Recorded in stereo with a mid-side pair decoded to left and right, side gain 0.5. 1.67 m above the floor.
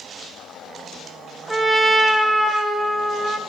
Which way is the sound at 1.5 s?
10° right.